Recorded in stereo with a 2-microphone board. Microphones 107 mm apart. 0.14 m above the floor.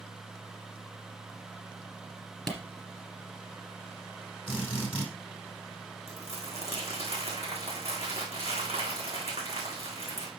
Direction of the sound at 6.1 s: 75° right (ahead or behind).